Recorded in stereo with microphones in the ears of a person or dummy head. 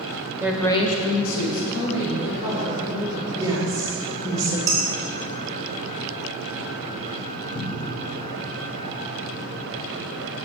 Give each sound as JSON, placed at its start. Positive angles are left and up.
{"t": 0.4, "sound": "a woman speaking", "side_deg": -10, "distance_m": 0.8}
{"t": 3.4, "sound": "a woman speaking", "side_deg": -15, "distance_m": 1.4}
{"t": 4.7, "sound": "dishes clattering", "side_deg": -15, "distance_m": 1.2}
{"t": 7.5, "sound": "a cupboard door", "side_deg": 85, "distance_m": 1.5}